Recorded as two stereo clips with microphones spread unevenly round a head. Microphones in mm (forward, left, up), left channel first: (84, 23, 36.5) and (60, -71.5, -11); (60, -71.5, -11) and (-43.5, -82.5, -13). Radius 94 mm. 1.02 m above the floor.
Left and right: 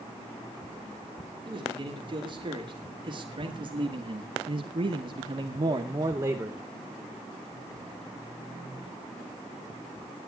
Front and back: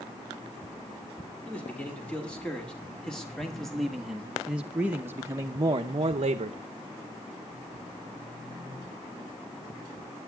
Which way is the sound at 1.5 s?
70° right.